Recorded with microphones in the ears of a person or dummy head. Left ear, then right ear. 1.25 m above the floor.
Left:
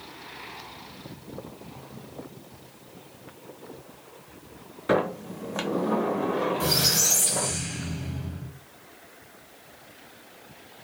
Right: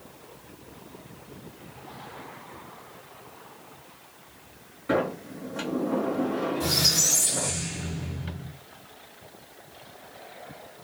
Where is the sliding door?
30° left (ahead or behind), 0.5 m.